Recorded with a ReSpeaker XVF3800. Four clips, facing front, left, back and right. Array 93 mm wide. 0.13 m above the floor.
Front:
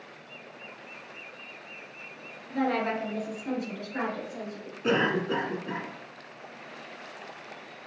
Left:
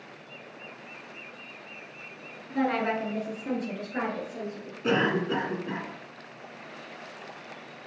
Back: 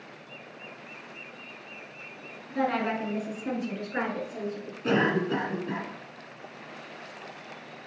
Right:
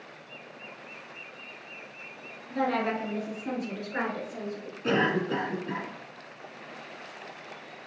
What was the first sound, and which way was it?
A woman speaking, 85° left.